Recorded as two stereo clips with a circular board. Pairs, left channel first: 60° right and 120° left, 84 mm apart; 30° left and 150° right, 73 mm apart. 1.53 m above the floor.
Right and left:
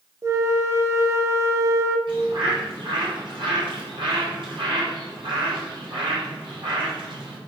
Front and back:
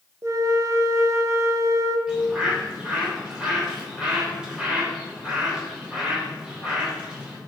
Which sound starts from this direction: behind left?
A bird, at 2.1 s.